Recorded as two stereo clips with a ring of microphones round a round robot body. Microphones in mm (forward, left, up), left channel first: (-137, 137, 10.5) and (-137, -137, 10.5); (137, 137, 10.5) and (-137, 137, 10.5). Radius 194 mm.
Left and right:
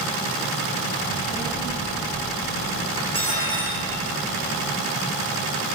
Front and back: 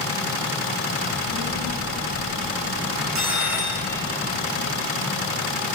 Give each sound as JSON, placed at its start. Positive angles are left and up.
{"t": 1.0, "sound": "a child speaking", "azimuth_deg": -175, "distance_m": 9.5}
{"t": 3.0, "sound": "cutlery clinking", "azimuth_deg": 160, "distance_m": 9.5}